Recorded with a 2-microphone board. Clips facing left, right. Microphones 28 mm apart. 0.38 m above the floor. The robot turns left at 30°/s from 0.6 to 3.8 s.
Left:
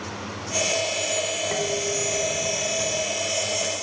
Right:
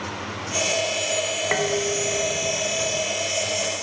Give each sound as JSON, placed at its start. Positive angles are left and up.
{"t": 1.5, "sound": "dishes clattering", "azimuth_deg": -115}